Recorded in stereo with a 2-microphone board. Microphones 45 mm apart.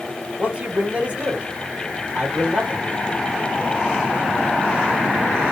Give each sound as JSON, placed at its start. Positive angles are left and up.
{"t": 0.4, "sound": "a man speaking", "side_deg": -30, "distance_m": 1.6}